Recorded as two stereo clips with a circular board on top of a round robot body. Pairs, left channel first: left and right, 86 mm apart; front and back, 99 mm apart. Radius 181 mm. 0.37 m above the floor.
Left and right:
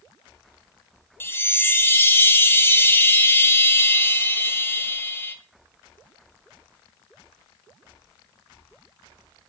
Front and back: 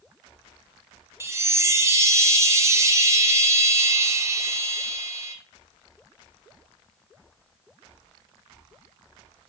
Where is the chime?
135° left, 0.6 m.